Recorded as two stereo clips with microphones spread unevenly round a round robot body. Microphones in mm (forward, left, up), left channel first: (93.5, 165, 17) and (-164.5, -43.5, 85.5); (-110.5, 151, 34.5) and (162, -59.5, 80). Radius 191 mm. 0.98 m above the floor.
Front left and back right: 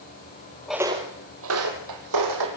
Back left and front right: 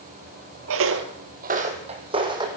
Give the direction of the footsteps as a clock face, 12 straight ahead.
2 o'clock.